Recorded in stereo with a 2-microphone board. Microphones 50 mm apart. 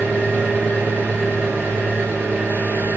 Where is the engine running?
45° right (ahead or behind), 3 m.